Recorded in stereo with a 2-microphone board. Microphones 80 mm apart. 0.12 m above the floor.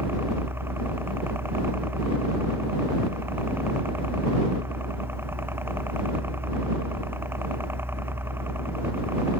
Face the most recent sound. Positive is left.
turn(degrees=-30)  # may be behind; listen again after turning